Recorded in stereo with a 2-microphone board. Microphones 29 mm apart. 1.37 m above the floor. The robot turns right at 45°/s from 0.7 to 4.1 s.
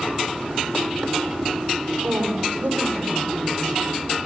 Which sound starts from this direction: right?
A woman speaking, at 2.0 s.